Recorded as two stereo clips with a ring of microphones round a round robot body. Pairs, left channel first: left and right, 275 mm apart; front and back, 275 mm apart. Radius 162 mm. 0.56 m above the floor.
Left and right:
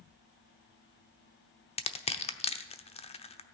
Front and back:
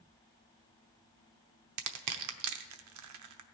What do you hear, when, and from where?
1.8 s crushing: 160° left, 0.9 m